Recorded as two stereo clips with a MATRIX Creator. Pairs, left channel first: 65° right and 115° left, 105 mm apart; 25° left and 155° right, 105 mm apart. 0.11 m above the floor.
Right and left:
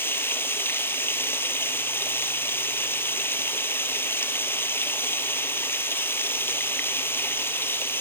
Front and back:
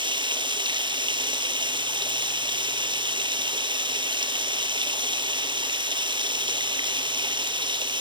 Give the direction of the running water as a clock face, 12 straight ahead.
4 o'clock.